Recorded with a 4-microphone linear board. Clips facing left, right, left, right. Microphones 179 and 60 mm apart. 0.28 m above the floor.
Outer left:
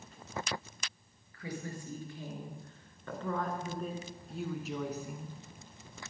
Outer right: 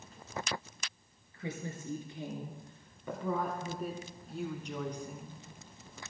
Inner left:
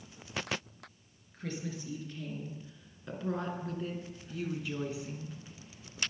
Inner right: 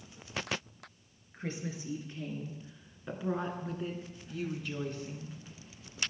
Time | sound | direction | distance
1.3 | a woman speaking | 25° right (ahead or behind) | 3.5 m